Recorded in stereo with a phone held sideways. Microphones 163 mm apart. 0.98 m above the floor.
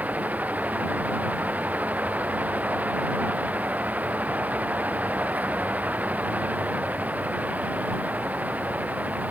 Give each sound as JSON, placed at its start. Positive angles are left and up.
{"t": 0.0, "sound": "a fan", "side_deg": -10}